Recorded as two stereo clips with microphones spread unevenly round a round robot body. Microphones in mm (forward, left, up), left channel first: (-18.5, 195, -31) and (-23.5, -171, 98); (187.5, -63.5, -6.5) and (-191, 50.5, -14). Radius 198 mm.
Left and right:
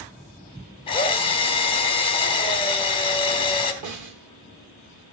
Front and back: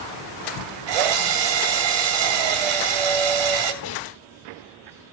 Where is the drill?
155° left, 2.5 m.